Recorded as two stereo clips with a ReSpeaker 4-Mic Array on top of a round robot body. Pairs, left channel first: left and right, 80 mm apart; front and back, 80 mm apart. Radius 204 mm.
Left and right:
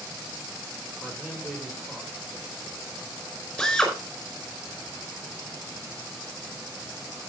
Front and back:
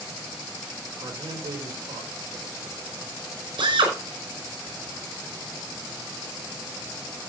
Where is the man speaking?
170° right, 4.5 m.